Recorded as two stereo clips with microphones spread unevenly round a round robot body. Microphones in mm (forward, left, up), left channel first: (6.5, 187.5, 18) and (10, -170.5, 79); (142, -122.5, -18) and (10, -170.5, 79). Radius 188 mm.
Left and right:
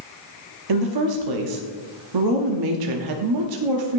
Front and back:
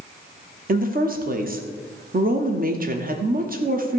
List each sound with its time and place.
0.7 s a woman speaking: 110° right, 1.2 m